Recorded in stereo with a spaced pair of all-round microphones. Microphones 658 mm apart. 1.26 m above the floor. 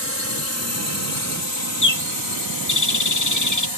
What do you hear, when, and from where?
0.0 s a drone: 20° right (ahead or behind); by 3.8 s 35° right (ahead or behind)
1.8 s a bird: 25° left (ahead or behind)